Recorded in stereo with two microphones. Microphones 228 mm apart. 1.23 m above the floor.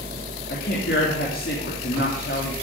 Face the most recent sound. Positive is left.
turn(degrees=60)  # may be behind; listen again after turning